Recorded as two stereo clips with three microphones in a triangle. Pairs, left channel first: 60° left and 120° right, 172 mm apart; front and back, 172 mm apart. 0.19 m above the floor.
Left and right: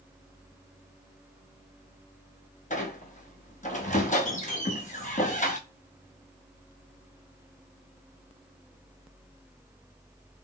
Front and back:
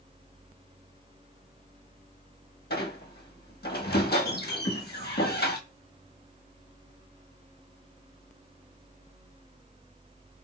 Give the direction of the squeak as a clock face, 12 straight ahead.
11 o'clock.